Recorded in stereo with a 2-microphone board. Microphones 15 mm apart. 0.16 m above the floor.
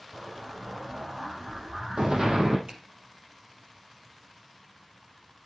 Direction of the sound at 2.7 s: 70° right (ahead or behind).